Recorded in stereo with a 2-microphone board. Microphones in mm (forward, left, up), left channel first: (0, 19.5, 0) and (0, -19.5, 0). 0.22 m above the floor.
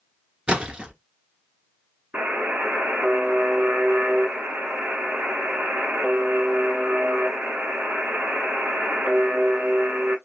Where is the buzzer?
55° right (ahead or behind), 1.2 m.